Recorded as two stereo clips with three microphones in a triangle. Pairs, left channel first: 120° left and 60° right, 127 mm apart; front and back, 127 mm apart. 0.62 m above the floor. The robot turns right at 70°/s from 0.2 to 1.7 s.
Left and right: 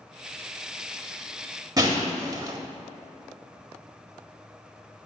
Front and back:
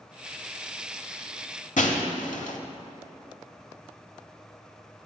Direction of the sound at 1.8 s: Straight ahead.